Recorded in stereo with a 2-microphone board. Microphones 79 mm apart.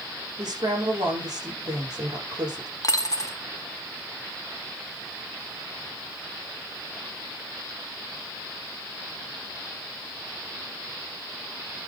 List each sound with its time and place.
0.4 s a woman speaking: 55° right (ahead or behind), 7.5 m
2.8 s a dropped coin: 45° left (ahead or behind), 1.0 m